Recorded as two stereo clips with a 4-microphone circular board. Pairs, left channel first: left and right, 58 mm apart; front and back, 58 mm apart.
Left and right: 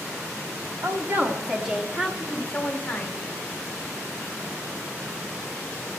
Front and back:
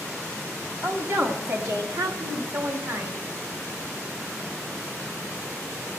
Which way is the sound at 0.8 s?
130° right.